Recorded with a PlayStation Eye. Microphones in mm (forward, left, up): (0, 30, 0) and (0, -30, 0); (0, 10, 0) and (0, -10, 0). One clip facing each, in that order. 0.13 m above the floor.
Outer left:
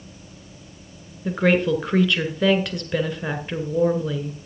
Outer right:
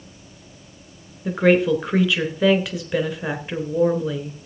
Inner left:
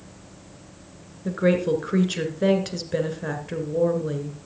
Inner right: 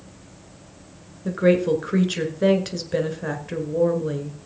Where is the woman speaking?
5° right (ahead or behind), 1.6 m.